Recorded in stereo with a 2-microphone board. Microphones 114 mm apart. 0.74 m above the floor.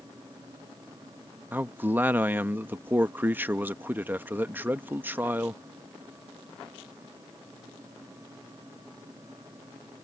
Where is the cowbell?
I don't hear a cowbell.